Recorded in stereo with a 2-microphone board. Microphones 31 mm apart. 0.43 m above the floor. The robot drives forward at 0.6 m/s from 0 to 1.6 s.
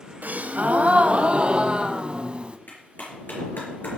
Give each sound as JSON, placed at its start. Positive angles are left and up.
{"t": 0.2, "sound": "a gasp", "side_deg": -70, "distance_m": 0.8}
{"t": 2.7, "sound": "a clap", "side_deg": 85, "distance_m": 5.5}